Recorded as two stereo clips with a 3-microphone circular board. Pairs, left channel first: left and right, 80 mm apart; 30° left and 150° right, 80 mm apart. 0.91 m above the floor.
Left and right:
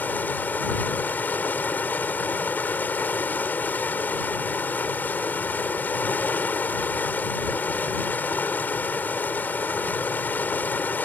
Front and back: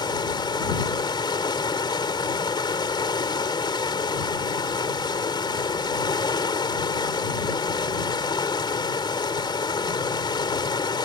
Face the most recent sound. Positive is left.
turn(degrees=25)